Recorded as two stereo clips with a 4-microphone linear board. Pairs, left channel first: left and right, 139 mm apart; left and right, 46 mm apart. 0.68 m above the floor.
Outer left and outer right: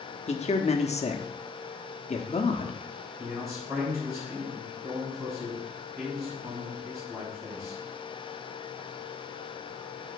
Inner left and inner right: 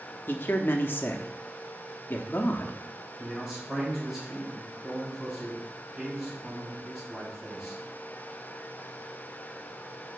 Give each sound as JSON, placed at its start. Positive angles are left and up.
{"t": 0.3, "sound": "a man speaking", "side_deg": 50, "distance_m": 1.0}
{"t": 3.2, "sound": "a man speaking", "side_deg": -15, "distance_m": 4.0}